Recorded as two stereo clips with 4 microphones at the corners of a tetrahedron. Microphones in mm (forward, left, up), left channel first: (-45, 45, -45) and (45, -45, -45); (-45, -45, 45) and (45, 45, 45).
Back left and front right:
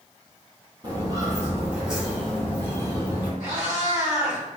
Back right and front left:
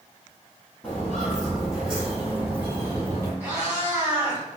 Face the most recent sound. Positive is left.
turn(degrees=-35)